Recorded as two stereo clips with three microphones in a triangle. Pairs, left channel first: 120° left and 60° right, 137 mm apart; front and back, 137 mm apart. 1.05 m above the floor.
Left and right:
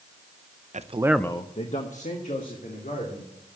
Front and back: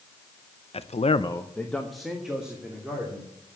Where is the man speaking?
40° right, 0.7 m; by 3.6 s 100° left, 3.5 m.